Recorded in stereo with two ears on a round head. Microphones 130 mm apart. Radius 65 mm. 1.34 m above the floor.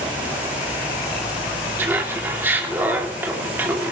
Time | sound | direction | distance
1.8 | laughter | 15° right (ahead or behind) | 2.5 m